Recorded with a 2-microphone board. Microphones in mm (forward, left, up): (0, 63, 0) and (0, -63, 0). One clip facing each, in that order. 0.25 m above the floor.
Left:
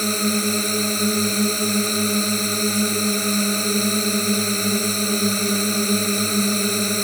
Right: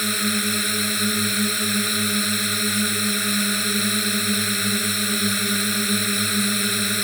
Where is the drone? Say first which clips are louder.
Left 4 dB; 35° left (ahead or behind).